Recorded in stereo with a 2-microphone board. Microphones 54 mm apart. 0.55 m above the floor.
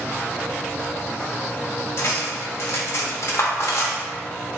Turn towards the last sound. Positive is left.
turn(degrees=60)  # may be behind; listen again after turning